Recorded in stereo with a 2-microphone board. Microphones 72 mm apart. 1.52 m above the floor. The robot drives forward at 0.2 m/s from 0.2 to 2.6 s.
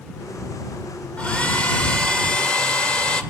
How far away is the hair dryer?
About 1.6 m.